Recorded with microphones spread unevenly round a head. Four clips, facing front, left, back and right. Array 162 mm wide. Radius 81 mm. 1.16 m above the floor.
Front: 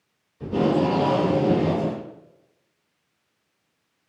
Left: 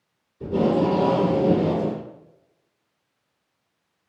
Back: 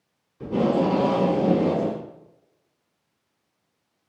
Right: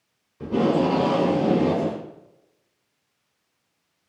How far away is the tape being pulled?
About 1.5 m.